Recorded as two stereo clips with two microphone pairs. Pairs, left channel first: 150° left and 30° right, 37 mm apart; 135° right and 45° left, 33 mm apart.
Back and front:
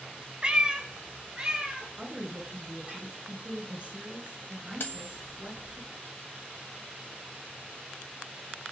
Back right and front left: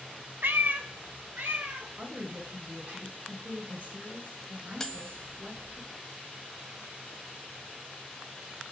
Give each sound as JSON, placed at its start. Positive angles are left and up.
{"t": 0.4, "sound": "a cat meowing", "azimuth_deg": 30, "distance_m": 0.8}
{"t": 2.0, "sound": "a woman speaking", "azimuth_deg": 20, "distance_m": 5.0}
{"t": 4.8, "sound": "cutlery clinking", "azimuth_deg": 145, "distance_m": 1.4}